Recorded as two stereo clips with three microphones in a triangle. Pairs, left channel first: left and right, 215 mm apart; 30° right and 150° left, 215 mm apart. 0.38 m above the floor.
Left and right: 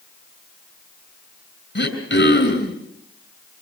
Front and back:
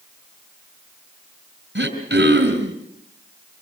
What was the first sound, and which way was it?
Throat clearing, 115° left.